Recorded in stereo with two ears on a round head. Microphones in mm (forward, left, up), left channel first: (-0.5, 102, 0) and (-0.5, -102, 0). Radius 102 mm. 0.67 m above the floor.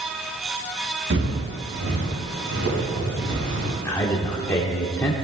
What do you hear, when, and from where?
1.1 s footsteps: 50° right (ahead or behind), 5.5 m; by 3.8 s 55° right (ahead or behind), 9 m
3.9 s a man speaking: 10° left (ahead or behind), 1.8 m